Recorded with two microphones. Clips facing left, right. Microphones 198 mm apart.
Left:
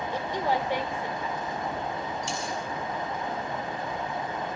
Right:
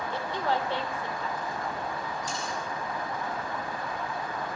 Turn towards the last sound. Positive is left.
turn(degrees=75)  # may be behind; listen again after turning